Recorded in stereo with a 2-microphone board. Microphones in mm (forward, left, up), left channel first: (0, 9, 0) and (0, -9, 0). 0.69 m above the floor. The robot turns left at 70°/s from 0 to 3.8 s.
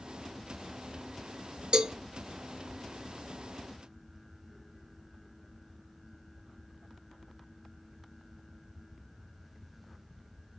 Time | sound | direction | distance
1.7 | a cowbell | 60° right (ahead or behind) | 0.7 m